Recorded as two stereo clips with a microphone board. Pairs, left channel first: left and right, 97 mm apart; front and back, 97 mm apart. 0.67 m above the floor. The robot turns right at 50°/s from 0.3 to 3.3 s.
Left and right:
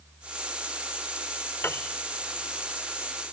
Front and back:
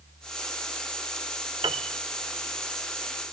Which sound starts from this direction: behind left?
A piano, at 1.6 s.